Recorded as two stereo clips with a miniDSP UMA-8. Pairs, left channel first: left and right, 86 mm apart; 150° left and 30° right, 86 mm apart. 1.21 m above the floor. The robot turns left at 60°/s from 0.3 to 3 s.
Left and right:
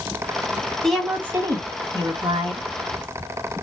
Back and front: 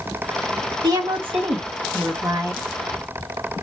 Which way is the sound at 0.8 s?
5° left.